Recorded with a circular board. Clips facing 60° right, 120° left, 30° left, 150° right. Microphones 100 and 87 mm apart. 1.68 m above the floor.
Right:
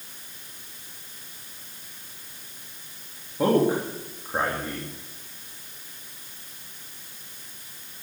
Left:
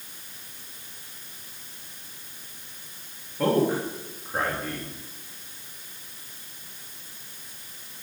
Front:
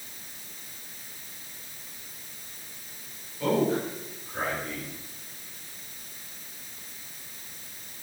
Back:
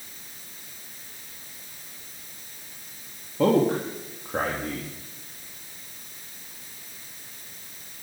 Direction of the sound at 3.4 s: 135° right.